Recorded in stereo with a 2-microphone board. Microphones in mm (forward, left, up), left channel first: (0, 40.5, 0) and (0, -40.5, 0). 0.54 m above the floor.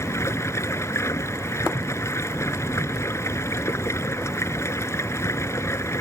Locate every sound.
0.0 s running water: 35° left (ahead or behind)